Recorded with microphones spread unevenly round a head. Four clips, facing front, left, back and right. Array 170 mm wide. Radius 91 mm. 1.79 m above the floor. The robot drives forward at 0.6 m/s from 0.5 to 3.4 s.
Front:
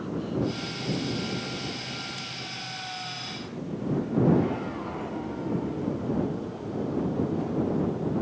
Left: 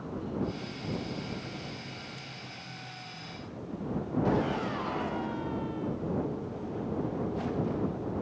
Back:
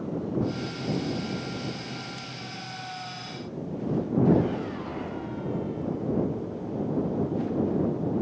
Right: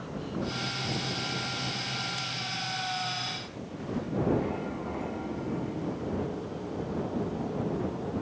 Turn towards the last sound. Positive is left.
No sound to turn to.